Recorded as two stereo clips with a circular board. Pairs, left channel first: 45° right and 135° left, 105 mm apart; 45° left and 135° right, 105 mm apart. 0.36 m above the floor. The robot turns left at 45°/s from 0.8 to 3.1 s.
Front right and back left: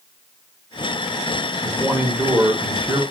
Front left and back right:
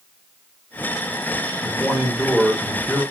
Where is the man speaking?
175° right, 0.8 m; by 3.0 s 120° left, 0.8 m.